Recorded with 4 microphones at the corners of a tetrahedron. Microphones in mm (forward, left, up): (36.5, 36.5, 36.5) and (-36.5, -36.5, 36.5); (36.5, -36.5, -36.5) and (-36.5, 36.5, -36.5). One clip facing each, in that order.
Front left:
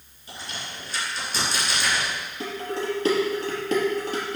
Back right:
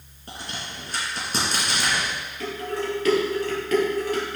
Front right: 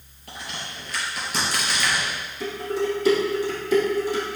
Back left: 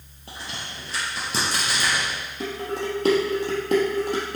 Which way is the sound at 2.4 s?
105° left.